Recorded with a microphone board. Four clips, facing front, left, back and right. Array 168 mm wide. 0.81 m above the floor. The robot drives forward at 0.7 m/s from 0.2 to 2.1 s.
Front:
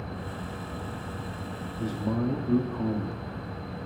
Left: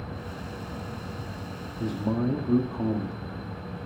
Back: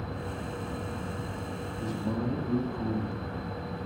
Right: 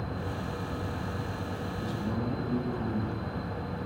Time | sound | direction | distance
1.8 | a man speaking | 60° left | 2 m